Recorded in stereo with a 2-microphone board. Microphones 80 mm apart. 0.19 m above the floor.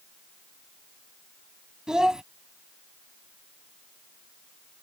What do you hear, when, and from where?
1.9 s a child speaking: 10° right (ahead or behind)